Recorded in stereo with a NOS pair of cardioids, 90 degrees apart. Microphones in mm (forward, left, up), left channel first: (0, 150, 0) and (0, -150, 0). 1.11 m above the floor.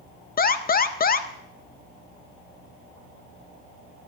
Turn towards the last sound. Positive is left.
turn(degrees=30)